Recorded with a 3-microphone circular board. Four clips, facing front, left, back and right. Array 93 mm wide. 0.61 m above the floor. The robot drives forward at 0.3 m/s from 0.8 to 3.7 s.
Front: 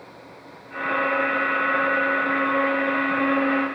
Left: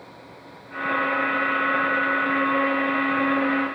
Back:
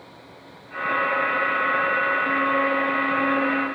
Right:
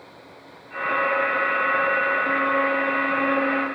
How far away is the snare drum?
No snare drum in this recording.